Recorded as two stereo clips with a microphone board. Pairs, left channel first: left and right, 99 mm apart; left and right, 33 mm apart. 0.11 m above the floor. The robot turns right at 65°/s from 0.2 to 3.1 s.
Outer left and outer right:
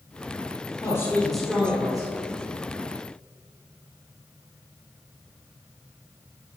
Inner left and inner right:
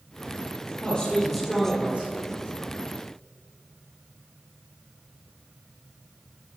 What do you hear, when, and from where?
0.8 s a man speaking: 145° left, 3 m; by 2.1 s 135° right, 3 m